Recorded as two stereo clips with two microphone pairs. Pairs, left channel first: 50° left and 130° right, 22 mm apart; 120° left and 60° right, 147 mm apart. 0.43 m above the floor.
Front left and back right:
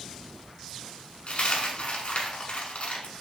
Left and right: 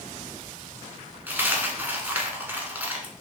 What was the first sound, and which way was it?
A dropped coin, 15° left.